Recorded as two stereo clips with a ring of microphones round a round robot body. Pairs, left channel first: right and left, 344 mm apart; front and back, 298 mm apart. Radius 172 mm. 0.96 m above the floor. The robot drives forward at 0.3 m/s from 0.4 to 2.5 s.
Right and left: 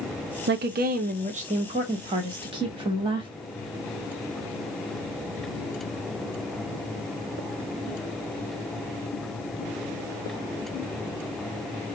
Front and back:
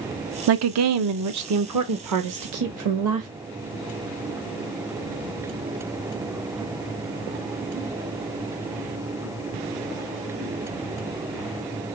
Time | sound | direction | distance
0.5 | a woman speaking | 145° left | 0.5 m